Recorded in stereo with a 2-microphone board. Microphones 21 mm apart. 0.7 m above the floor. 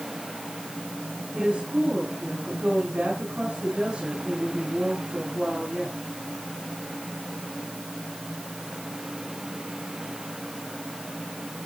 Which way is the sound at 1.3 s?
70° right (ahead or behind).